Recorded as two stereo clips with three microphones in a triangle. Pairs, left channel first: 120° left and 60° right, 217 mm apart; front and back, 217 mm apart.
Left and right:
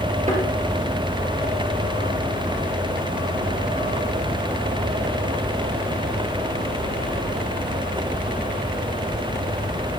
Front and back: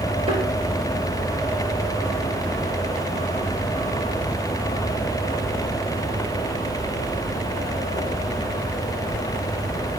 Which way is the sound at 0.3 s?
115° right.